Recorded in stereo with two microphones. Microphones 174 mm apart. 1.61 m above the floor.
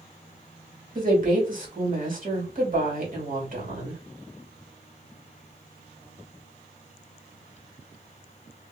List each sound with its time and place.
0.9 s a woman speaking: 50° right (ahead or behind), 1.6 m